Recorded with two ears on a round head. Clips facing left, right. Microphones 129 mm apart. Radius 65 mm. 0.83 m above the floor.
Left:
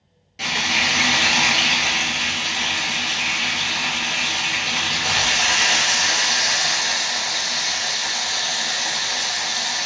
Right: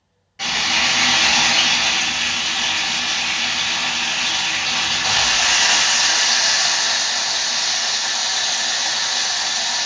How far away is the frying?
About 1.3 m.